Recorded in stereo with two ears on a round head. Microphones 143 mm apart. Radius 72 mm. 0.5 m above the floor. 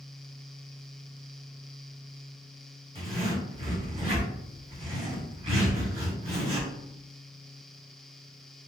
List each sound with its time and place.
3.0 s a zipper: 40° right (ahead or behind), 2.0 m